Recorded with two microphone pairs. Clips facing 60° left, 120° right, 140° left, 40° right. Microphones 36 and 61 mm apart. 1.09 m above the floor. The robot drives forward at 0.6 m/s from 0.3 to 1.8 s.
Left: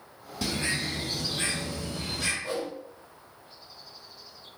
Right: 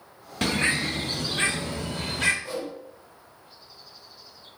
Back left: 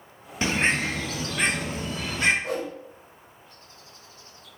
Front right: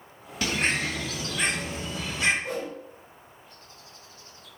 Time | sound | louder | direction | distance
0.4 | a bird | right 6 dB, back left 3 dB | 155° right | 0.8 m
2.4 | a whoosh | even, back left 2 dB | 120° left | 2.5 m